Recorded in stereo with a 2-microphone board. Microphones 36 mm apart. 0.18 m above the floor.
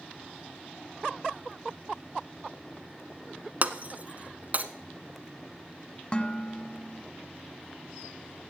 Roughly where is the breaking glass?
Right.